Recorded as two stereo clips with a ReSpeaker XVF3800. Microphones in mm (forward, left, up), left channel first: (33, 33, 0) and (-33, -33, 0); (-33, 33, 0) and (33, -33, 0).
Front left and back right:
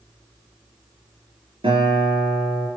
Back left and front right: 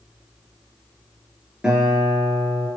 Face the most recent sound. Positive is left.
turn(degrees=-130)